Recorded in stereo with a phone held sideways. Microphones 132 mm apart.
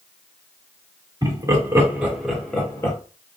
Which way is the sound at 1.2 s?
30° right (ahead or behind).